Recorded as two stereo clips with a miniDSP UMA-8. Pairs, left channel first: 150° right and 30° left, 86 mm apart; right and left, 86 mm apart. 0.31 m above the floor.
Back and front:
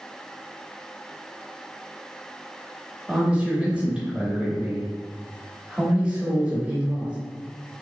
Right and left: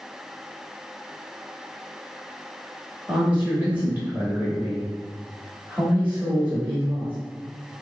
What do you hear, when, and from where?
3.1 s a man speaking: 80° left, 0.9 m